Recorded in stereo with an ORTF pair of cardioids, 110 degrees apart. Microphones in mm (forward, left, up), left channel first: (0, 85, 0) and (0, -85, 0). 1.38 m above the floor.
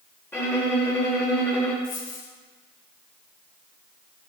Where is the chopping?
No chopping in this recording.